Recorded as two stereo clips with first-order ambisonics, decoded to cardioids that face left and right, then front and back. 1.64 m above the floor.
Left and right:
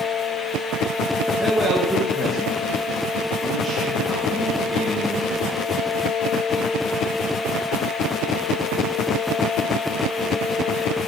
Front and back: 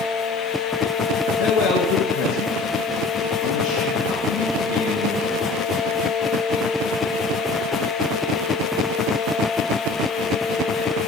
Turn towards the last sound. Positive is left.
turn(degrees=0)